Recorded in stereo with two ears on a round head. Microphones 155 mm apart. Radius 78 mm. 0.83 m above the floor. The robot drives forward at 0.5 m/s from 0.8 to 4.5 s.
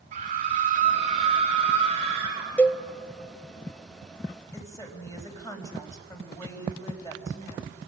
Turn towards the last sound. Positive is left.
turn(degrees=20)  # may be behind; listen again after turning